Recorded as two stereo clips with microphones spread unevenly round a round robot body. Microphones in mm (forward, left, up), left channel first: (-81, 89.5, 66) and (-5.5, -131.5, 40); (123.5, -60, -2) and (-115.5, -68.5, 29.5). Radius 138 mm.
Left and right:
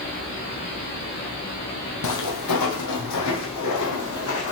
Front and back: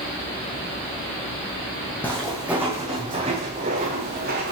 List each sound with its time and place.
2.0 s footsteps: 90° left, 1.4 m; by 4.5 s 130° left, 2 m